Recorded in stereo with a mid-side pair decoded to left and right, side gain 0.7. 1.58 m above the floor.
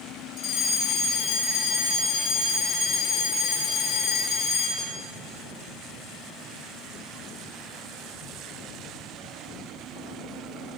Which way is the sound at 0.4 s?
55° left.